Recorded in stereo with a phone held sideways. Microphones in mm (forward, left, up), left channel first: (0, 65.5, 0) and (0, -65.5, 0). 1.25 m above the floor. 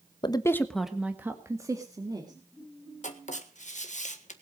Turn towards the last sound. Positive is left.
turn(degrees=70)  # may be behind; listen again after turning